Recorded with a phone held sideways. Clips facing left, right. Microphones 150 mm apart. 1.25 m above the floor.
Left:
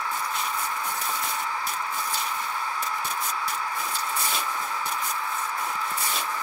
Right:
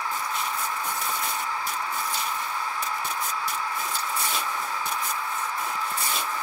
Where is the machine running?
30° right (ahead or behind), 2.5 m.